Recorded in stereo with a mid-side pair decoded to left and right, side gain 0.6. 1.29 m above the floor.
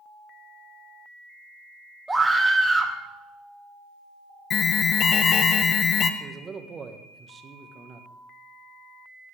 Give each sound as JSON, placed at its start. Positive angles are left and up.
{"t": 2.1, "sound": "a scream", "azimuth_deg": -5, "distance_m": 2.0}
{"t": 4.5, "sound": "an alarm", "azimuth_deg": 45, "distance_m": 0.9}
{"t": 6.2, "sound": "a man speaking", "azimuth_deg": -30, "distance_m": 1.4}